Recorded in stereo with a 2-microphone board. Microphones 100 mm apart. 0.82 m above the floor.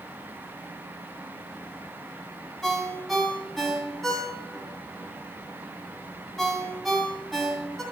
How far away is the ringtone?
About 2.5 m.